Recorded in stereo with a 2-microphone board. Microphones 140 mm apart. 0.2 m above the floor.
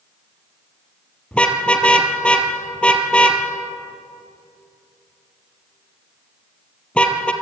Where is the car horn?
5° left (ahead or behind), 2.5 m.